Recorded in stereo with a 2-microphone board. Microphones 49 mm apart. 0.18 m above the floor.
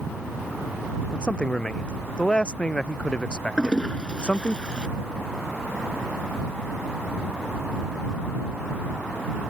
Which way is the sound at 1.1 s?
20° left (ahead or behind).